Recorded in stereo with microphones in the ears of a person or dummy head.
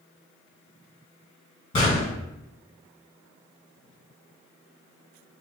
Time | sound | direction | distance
1.7 | a gunshot | 20° left (ahead or behind) | 1.1 m